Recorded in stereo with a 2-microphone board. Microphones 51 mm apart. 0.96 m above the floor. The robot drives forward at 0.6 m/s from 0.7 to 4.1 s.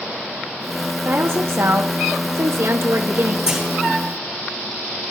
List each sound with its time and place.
1.0 s a woman speaking: 50° right (ahead or behind), 1.2 m; by 3.4 s 55° right (ahead or behind), 1.2 m
3.5 s a clunk: 15° right (ahead or behind), 3 m